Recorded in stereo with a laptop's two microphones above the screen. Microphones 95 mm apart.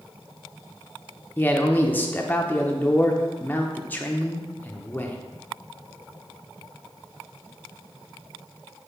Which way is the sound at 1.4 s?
20° left (ahead or behind).